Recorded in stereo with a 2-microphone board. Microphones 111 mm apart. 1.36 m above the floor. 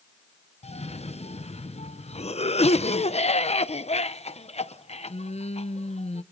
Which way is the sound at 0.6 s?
70° left (ahead or behind).